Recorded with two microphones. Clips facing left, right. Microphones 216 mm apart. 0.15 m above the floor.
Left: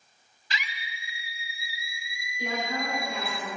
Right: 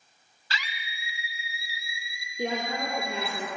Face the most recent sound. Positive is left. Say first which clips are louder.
# right 2 dB
turn(degrees=-60)  # may be behind; listen again after turning